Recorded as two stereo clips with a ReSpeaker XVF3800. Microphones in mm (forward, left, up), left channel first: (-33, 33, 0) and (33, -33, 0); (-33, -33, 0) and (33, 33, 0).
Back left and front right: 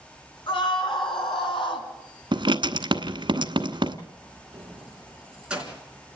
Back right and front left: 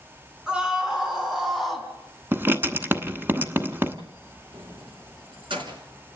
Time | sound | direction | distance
0.5 | a scream | 125° left | 5.5 m
2.3 | writing | 20° right | 1.1 m
4.5 | keys jangling | 35° left | 3.5 m